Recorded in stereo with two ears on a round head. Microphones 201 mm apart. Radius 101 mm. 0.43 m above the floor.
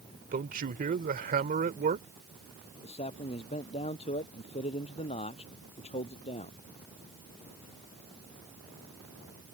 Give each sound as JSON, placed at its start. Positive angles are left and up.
{"t": 0.3, "sound": "a man speaking", "side_deg": -40}
{"t": 2.8, "sound": "a man speaking", "side_deg": 25}